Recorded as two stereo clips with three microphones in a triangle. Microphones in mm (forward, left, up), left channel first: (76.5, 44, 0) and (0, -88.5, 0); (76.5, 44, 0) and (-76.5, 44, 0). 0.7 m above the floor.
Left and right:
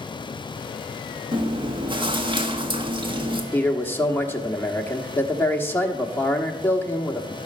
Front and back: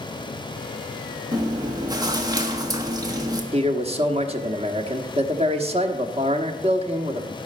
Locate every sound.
1.3 s chewing: 135° right, 1.1 m
3.5 s a man speaking: 135° left, 1.1 m